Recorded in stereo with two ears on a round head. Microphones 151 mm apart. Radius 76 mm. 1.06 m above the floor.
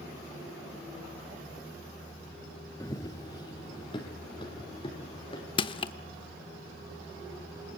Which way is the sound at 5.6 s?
30° left (ahead or behind).